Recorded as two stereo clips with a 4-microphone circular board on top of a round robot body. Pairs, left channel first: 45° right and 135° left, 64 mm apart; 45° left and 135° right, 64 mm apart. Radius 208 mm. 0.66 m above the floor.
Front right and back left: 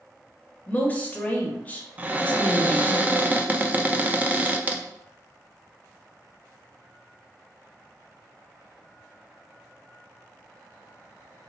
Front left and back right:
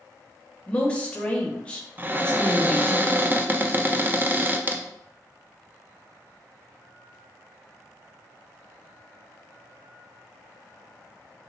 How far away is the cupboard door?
About 0.6 m.